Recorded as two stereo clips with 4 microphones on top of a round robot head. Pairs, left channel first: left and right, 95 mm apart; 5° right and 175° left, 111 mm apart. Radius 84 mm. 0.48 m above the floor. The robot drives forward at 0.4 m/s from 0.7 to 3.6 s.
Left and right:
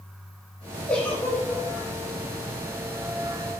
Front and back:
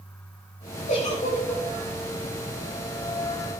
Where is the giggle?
10° left, 3.5 m.